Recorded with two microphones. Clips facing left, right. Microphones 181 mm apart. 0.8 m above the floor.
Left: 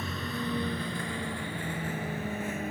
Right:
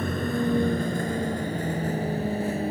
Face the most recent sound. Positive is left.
turn(degrees=-35)  # may be behind; listen again after turning